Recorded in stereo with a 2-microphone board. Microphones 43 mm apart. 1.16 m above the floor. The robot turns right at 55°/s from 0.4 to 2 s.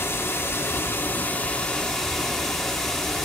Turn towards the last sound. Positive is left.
turn(degrees=180)